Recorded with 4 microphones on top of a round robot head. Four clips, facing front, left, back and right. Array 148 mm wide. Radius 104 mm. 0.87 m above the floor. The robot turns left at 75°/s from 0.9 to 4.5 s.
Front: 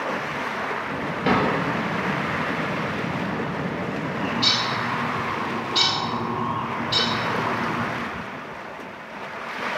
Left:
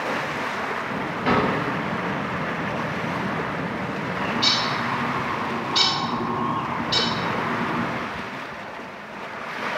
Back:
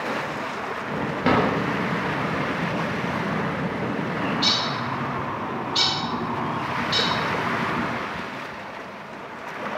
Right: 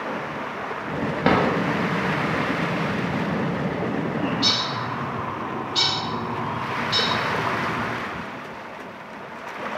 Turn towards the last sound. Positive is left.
turn(degrees=95)